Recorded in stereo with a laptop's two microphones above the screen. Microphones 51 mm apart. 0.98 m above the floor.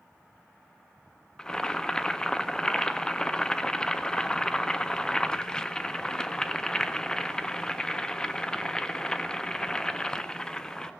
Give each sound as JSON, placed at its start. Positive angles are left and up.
{"t": 1.4, "sound": "boiling", "side_deg": 15, "distance_m": 0.5}